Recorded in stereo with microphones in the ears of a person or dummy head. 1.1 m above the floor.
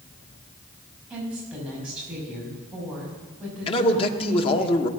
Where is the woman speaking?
5° right (ahead or behind), 6.5 m.